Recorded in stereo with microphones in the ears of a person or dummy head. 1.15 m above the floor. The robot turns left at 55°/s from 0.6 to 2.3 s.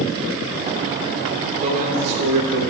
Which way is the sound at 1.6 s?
35° right.